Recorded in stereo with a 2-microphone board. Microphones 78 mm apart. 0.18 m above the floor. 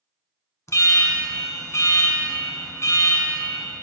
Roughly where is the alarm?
Left.